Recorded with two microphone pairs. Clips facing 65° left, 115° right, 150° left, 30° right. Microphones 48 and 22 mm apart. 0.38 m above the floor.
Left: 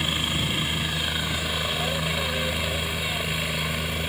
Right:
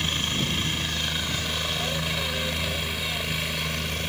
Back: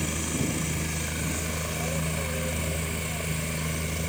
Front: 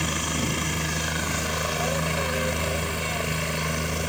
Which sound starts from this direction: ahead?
A helicopter, at 0.0 s.